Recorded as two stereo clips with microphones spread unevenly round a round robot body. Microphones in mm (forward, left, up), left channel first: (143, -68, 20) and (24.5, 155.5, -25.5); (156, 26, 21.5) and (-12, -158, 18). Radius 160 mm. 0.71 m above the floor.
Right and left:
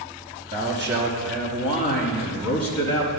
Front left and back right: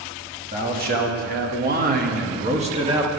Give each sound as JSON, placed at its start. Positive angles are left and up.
{"t": 0.5, "sound": "a man speaking", "azimuth_deg": 180, "distance_m": 1.0}